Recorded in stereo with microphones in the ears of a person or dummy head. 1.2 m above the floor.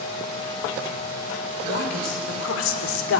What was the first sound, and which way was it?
A woman speaking, 75° left (ahead or behind).